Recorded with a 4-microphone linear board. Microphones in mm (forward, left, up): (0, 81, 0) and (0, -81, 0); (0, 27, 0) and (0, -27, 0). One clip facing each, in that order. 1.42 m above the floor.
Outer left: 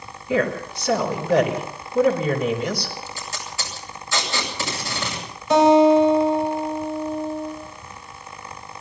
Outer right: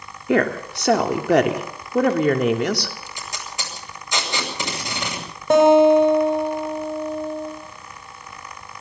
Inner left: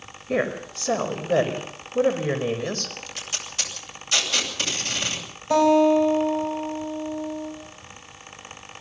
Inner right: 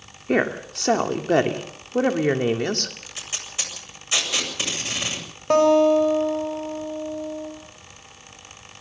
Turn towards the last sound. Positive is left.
turn(degrees=-55)  # may be behind; listen again after turning